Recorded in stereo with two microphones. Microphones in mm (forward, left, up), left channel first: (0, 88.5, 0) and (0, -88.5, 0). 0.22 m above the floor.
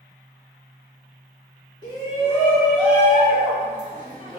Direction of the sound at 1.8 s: 25° left (ahead or behind).